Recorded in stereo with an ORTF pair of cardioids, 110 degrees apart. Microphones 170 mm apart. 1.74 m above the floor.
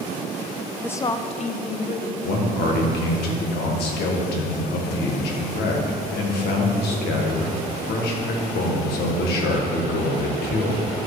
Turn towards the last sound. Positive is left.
turn(degrees=70)